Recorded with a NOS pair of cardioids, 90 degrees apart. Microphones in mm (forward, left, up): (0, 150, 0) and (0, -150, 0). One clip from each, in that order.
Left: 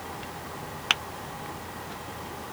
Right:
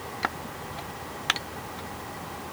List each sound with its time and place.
Only background noise.